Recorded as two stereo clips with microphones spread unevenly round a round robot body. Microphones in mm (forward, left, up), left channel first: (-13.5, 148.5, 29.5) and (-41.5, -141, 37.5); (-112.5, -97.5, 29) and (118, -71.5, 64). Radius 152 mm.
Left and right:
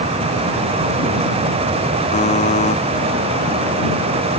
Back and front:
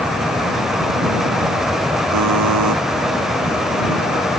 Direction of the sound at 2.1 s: 15° left.